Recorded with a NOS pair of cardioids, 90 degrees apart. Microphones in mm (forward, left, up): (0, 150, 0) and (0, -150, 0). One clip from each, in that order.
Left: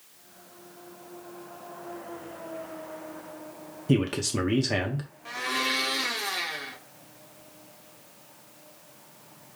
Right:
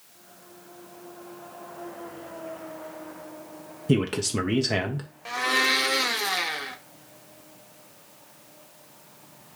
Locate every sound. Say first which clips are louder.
3.9 s a man speaking: right 1 dB; 5° right, 0.7 m
5.2 s a blender: right 5 dB; 25° right, 0.8 m